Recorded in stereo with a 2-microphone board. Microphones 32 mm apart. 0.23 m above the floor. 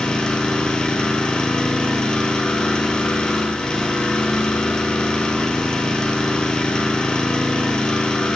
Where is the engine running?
30° left (ahead or behind), 1.7 m.